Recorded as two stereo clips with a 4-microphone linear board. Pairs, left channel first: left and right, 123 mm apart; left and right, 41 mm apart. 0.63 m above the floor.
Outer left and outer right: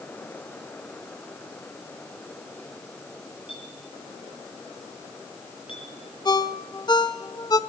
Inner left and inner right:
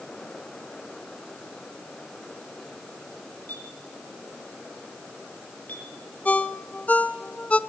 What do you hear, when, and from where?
3.5 s a clink: 45° left (ahead or behind), 7 m
6.2 s a ringtone: 35° left (ahead or behind), 1.0 m